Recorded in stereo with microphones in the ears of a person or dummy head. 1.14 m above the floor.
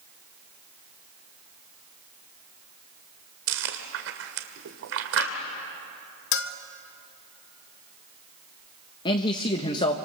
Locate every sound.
3.5 s chewing: 75° right (ahead or behind), 1.9 m
6.3 s a bell: 65° left (ahead or behind), 0.8 m
9.1 s a man speaking: 30° left (ahead or behind), 1.1 m